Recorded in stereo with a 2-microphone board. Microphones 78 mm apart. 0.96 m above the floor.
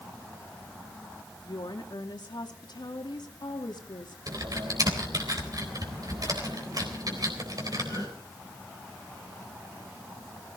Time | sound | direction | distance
1.4 | a woman speaking | 65° left (ahead or behind) | 2.5 m
4.3 | typing on a keyboard | 55° right (ahead or behind) | 4 m